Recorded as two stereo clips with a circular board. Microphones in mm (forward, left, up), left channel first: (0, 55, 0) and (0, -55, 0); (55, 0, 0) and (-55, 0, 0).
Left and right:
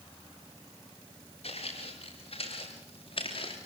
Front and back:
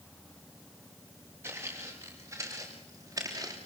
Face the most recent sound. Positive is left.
turn(degrees=125)